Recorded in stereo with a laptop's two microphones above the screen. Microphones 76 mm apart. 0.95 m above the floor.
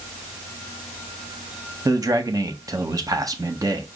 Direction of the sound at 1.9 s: 50° right (ahead or behind).